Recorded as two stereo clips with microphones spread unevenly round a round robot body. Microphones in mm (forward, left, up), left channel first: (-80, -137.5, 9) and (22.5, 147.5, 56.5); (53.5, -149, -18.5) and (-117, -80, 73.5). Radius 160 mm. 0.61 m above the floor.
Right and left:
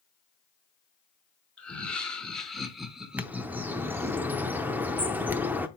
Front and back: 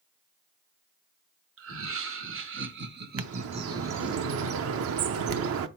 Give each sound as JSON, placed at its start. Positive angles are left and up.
{"t": 1.6, "sound": "laughter", "azimuth_deg": 170, "distance_m": 1.9}
{"t": 3.2, "sound": "a bird", "azimuth_deg": 155, "distance_m": 0.5}